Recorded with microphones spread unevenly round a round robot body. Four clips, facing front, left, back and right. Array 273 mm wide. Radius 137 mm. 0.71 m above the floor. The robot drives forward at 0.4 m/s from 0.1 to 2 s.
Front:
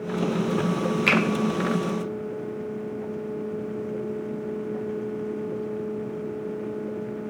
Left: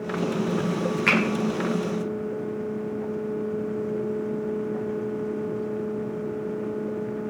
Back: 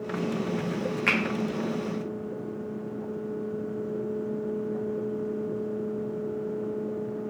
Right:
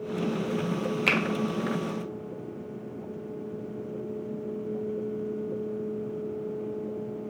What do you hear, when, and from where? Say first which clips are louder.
1.1 s a finger snap: left 5 dB, front 5 dB; 80° right, 0.6 m; by 1.2 s 85° right, 0.6 m